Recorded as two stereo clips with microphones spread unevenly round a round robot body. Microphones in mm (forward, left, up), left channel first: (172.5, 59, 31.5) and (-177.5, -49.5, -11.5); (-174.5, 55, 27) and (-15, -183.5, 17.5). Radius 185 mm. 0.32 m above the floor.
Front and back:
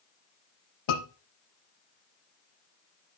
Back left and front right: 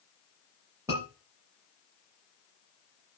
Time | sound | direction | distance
0.9 | a scream | 25° left | 7 m